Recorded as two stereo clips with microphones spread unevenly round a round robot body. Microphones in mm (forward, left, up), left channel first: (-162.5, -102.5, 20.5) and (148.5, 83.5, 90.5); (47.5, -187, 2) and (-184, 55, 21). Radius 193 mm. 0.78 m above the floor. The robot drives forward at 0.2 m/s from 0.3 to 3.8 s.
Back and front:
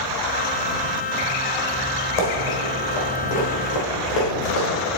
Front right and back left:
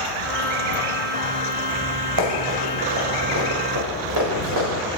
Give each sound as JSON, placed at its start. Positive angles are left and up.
{"t": 2.2, "sound": "running footsteps", "azimuth_deg": 155, "distance_m": 2.0}